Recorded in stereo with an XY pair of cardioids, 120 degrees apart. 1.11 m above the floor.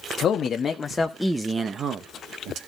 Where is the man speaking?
50° left, 1.4 m; by 2.6 s 70° right, 1.4 m.